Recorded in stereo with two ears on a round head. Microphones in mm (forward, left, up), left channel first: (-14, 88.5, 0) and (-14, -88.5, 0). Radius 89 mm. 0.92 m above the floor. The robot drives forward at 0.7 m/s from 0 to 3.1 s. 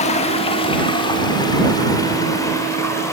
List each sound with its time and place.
0.0 s running water: 35° left (ahead or behind), 1.6 m; by 3.1 s 15° left (ahead or behind), 3.5 m